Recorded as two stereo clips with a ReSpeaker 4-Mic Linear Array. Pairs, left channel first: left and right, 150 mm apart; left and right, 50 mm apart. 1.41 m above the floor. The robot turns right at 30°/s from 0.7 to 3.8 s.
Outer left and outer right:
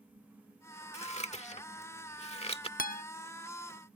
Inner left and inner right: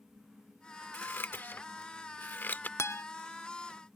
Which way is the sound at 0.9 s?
45° left (ahead or behind).